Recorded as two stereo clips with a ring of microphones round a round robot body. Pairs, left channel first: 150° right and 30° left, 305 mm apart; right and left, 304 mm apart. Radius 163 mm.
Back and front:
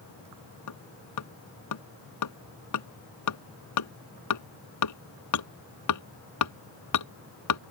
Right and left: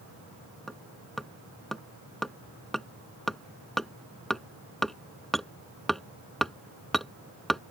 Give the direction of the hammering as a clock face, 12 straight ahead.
6 o'clock.